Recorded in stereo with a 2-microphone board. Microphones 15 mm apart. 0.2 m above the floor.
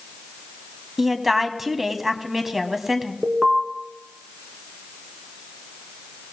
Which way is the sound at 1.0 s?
20° right (ahead or behind).